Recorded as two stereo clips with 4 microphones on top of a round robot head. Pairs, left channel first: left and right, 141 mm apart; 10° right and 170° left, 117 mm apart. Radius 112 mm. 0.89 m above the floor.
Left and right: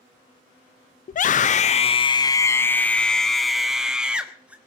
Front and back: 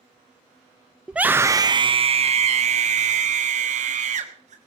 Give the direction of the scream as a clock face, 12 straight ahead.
9 o'clock.